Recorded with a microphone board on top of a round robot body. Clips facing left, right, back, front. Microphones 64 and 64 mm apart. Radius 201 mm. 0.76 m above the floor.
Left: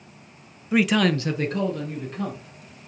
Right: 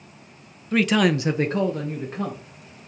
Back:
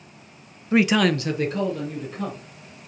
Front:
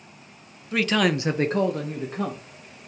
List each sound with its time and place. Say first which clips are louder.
0.7 s a man speaking: right 1 dB, back 3 dB; 160° left, 0.7 m; by 2.4 s 35° right, 1.5 m